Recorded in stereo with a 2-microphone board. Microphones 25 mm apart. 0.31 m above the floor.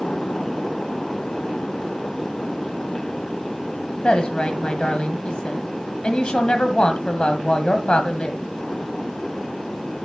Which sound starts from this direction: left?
A woman speaking, at 4.0 s.